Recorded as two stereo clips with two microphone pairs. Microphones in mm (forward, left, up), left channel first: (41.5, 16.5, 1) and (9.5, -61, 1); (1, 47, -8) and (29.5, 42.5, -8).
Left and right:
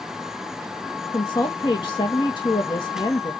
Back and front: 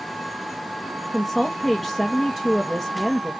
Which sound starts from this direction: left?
A woman speaking, at 1.1 s.